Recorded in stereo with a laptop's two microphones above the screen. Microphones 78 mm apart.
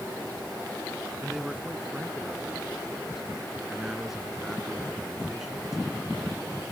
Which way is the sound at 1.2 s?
5° right (ahead or behind).